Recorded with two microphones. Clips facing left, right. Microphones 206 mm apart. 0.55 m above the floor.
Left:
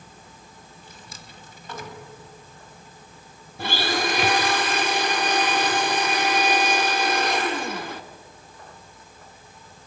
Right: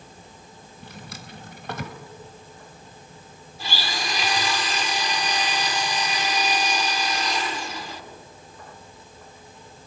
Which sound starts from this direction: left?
A blender, at 3.6 s.